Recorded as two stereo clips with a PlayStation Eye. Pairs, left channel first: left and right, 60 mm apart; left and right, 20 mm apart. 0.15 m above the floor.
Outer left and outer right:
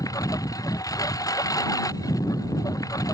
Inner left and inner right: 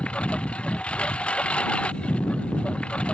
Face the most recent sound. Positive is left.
turn(degrees=70)  # may be behind; listen again after turning